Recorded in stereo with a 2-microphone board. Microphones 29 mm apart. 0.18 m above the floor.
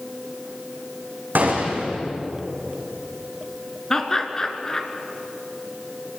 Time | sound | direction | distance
1.4 | a gunshot | 85° right | 5 m
3.9 | laughter | 20° left (ahead or behind) | 2.5 m